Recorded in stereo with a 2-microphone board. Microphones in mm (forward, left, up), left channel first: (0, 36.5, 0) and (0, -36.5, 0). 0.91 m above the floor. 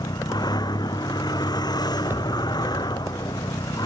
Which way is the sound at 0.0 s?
75° left (ahead or behind).